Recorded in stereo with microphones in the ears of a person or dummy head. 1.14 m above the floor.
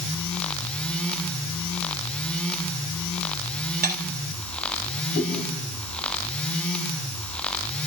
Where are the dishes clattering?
50° right (ahead or behind), 1.5 m.